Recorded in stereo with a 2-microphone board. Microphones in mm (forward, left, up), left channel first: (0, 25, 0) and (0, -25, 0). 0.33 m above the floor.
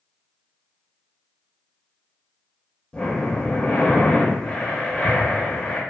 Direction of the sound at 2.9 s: 20° left (ahead or behind).